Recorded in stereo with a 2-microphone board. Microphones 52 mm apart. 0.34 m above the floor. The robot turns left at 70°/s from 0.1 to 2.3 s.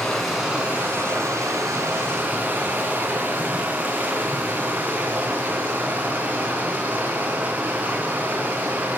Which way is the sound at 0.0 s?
10° left.